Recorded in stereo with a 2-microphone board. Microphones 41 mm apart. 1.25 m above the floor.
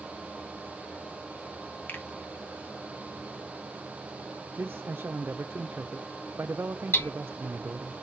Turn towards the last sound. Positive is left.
turn(degrees=65)  # may be behind; listen again after turning